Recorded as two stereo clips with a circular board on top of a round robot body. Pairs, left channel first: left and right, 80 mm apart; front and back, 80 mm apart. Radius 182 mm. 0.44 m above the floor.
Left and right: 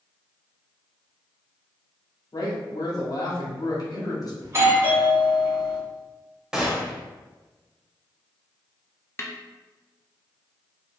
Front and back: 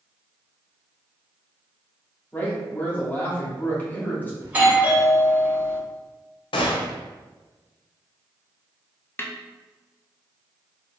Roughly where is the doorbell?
Behind right.